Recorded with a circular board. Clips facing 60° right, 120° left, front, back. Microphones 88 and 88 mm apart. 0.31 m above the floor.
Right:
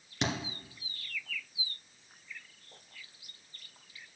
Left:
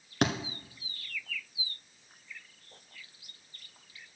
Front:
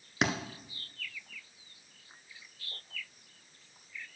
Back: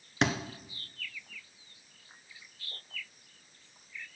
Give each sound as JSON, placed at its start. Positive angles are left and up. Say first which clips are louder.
{"t": 0.2, "sound": "a thud", "louder": "left 5 dB, back 2 dB", "azimuth_deg": 85, "distance_m": 1.2}